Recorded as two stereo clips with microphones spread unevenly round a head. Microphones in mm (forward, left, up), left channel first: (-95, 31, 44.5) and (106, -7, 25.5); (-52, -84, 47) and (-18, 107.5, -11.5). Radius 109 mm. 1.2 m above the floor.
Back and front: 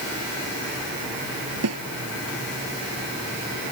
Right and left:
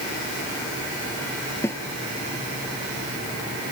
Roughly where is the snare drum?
Ahead.